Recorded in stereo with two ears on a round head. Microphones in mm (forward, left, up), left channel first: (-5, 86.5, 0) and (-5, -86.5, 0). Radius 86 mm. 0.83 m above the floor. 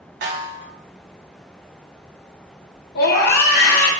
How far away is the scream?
About 0.8 m.